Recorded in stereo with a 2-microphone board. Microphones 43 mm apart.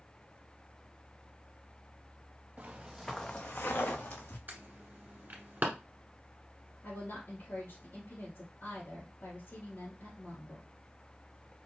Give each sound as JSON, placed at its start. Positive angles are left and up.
{"t": 2.6, "sound": "footsteps", "side_deg": -35, "distance_m": 0.8}
{"t": 4.5, "sound": "an alarm", "side_deg": -45, "distance_m": 1.4}
{"t": 6.8, "sound": "a woman speaking", "side_deg": 55, "distance_m": 2.5}